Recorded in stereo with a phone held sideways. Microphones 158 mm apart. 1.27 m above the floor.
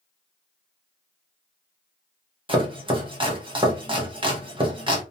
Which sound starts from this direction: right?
Chopping, at 2.5 s.